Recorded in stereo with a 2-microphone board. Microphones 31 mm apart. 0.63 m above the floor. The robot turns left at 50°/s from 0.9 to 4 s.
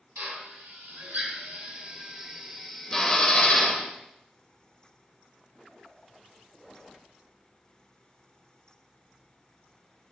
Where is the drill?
75° right (ahead or behind), 2.5 m; by 3.9 s 55° left (ahead or behind), 2.5 m.